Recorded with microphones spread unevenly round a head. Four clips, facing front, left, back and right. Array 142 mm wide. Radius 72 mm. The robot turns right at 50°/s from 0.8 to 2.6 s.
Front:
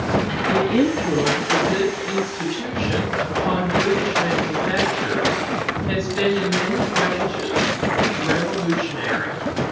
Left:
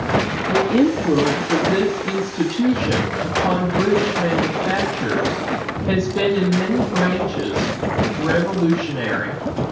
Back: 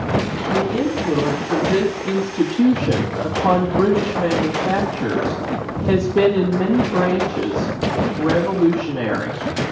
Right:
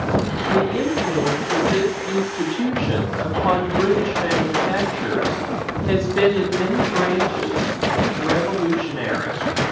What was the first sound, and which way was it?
A woman speaking, 65° left.